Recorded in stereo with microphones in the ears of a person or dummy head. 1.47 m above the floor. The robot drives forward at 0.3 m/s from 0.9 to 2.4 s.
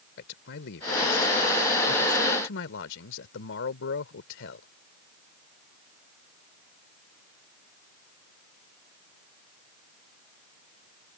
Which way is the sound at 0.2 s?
60° left (ahead or behind).